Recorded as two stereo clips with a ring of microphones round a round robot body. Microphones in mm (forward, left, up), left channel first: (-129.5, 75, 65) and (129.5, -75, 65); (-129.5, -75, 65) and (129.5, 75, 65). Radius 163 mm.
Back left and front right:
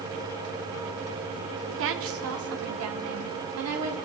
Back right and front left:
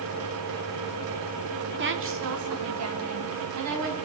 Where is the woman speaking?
5° right, 1.8 m; by 4.0 s 5° left, 4 m.